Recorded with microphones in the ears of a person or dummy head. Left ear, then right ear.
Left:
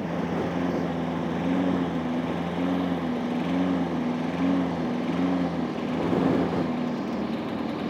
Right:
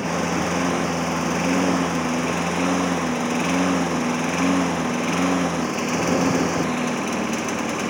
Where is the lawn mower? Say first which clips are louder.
Right 6 dB; 50° right (ahead or behind); by 7.9 s 60° right (ahead or behind).